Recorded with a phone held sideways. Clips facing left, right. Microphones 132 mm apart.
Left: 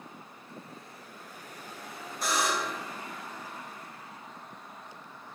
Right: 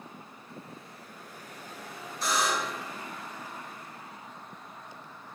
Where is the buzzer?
55° left (ahead or behind), 1.4 m.